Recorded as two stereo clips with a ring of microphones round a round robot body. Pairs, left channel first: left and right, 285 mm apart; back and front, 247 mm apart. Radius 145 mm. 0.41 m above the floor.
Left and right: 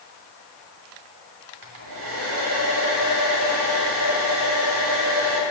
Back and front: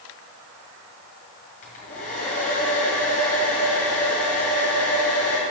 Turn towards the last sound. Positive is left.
turn(degrees=-120)